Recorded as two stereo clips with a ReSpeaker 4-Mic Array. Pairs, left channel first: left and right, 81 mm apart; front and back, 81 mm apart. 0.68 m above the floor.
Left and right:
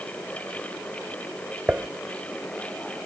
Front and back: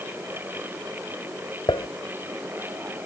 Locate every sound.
1.7 s dishes clattering: 20° right